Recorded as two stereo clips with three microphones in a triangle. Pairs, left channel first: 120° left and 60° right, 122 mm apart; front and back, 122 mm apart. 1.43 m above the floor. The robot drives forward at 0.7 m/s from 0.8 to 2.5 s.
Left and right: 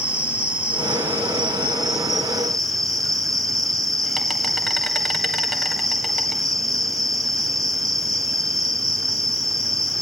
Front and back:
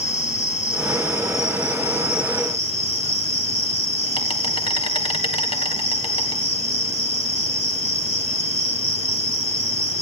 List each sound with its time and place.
0.0 s an insect: 20° left, 3 m; by 10.0 s 30° left, 1.9 m